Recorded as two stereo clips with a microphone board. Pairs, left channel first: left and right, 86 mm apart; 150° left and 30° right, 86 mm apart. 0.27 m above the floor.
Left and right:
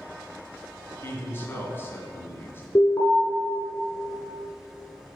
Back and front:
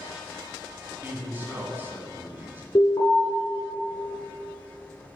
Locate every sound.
1.0 s a man speaking: 35° left, 1.8 m
2.8 s an alarm: 130° left, 1.9 m